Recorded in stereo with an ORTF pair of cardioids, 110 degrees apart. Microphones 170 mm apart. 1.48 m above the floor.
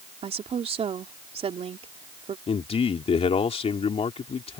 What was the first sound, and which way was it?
A woman speaking, 35° right.